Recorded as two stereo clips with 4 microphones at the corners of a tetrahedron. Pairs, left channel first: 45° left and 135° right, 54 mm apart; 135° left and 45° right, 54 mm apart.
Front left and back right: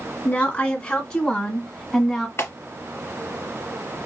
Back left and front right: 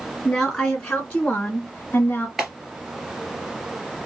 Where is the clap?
40° left, 2 m.